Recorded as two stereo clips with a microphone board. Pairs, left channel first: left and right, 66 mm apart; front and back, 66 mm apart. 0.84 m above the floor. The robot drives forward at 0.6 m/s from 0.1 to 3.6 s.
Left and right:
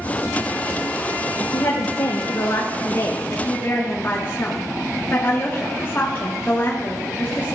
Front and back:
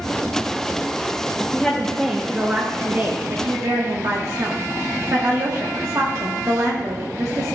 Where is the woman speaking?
70° left, 0.9 m; by 7.5 s 145° left, 1.2 m.